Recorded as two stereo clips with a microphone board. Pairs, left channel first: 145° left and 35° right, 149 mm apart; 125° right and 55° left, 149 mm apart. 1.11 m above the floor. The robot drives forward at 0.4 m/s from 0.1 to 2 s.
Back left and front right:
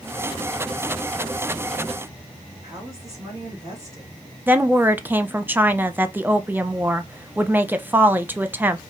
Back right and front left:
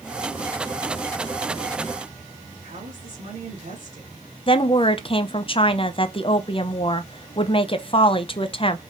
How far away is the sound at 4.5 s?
About 0.5 m.